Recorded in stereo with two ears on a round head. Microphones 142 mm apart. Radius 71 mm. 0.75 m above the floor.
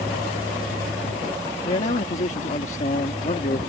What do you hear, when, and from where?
1.6 s a man speaking: 45° left (ahead or behind)